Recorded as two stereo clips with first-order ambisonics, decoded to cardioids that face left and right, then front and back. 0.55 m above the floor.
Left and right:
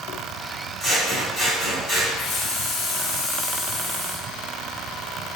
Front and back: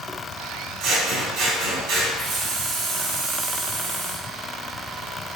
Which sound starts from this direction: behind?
Scissors, at 0.8 s.